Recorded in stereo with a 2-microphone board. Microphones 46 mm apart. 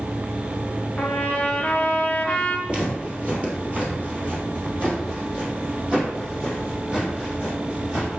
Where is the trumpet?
25° left (ahead or behind), 0.6 m.